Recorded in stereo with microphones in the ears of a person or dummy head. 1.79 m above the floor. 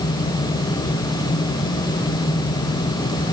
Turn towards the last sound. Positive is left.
No sound to turn to.